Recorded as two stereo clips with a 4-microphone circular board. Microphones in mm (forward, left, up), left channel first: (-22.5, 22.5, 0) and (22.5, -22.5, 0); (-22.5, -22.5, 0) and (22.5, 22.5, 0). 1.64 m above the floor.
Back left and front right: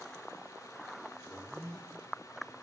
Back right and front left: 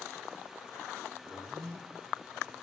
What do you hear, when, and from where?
1.2 s a zipper: 60° left, 7.5 m